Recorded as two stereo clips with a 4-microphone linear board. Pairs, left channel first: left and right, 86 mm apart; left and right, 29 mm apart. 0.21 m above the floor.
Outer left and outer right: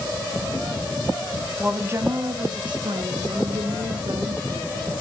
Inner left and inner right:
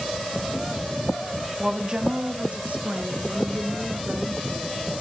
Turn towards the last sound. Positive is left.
turn(degrees=-80)